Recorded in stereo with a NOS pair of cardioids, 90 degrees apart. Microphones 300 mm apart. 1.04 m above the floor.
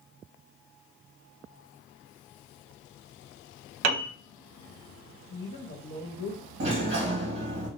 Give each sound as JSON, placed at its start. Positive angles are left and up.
{"t": 3.8, "sound": "a piano", "azimuth_deg": -60, "distance_m": 1.4}
{"t": 5.3, "sound": "a woman speaking", "azimuth_deg": 35, "distance_m": 1.3}
{"t": 6.6, "sound": "a sliding door", "azimuth_deg": -40, "distance_m": 1.8}